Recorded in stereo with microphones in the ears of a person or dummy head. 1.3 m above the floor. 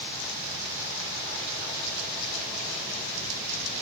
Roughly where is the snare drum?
I don't hear a snare drum.